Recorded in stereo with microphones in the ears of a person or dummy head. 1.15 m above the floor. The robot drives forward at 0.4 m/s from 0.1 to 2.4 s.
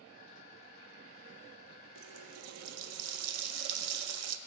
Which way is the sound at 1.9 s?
75° right (ahead or behind).